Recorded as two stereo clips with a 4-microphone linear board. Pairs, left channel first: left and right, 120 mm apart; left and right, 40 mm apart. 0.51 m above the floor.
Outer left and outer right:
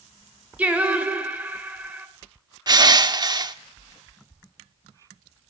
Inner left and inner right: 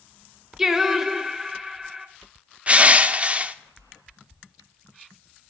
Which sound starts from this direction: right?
Crushing, at 2.7 s.